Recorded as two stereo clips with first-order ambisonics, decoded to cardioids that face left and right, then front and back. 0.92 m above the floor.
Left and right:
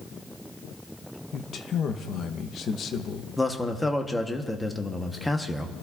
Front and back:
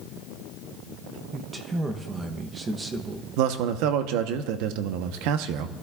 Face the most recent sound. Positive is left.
turn(degrees=175)